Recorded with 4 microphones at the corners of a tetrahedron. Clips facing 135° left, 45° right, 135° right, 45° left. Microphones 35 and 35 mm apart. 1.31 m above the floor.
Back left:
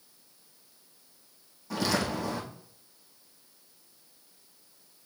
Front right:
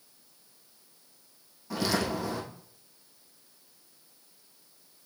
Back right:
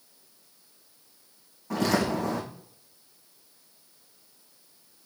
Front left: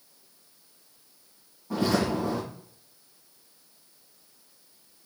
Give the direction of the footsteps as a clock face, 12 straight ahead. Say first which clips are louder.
Even, even; 4 o'clock.